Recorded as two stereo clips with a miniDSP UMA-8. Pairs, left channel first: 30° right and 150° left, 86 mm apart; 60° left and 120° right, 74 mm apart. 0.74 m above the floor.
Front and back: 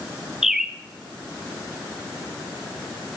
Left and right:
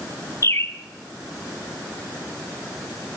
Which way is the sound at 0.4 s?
65° left.